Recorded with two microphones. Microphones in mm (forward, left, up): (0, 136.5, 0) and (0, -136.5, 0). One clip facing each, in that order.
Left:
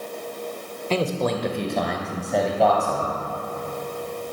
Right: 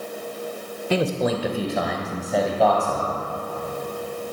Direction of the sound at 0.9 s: 10° right (ahead or behind).